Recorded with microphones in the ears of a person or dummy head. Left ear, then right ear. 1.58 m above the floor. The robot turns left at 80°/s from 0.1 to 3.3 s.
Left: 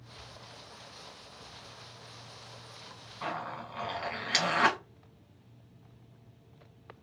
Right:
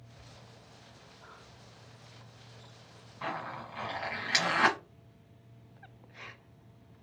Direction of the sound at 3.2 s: Centre (ahead or behind).